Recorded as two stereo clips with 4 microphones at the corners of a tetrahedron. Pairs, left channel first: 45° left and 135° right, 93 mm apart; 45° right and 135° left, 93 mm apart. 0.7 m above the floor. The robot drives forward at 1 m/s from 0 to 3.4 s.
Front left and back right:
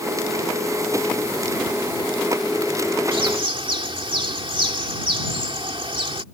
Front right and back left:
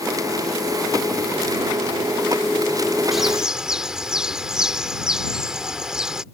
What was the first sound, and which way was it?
A bird, 140° right.